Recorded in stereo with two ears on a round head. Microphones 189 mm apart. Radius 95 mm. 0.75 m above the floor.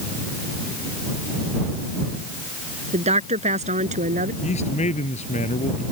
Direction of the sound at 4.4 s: 35° left (ahead or behind).